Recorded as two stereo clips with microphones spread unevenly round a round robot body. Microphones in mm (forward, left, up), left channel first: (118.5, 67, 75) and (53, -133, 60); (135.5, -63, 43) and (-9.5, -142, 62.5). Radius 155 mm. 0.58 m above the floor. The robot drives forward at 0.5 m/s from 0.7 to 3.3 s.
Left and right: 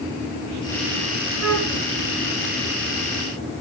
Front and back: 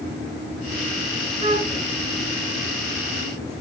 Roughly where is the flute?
Right.